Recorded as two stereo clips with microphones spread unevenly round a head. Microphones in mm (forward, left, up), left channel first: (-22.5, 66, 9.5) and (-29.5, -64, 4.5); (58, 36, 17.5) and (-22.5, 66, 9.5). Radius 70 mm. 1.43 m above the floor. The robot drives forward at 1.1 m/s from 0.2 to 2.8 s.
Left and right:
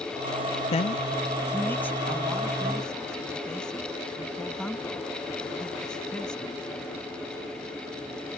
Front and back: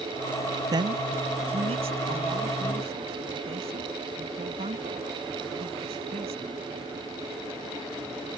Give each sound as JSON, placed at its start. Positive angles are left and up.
{"t": 0.7, "sound": "a man speaking", "azimuth_deg": 120}